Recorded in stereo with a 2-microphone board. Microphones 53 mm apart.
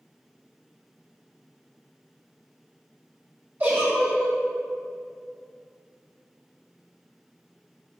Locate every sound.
3.6 s a giggle: 40° right (ahead or behind), 1.7 m